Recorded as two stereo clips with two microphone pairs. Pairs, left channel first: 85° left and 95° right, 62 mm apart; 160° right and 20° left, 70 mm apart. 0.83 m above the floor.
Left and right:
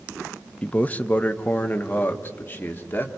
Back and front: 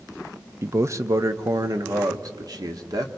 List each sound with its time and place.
0.6 s a man speaking: 25° left, 0.7 m; by 3.1 s 30° left, 1.8 m